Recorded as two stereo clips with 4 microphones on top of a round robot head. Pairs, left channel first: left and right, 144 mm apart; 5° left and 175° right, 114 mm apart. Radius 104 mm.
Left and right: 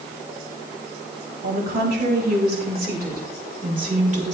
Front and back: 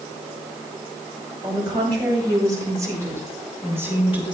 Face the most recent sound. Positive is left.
turn(degrees=-50)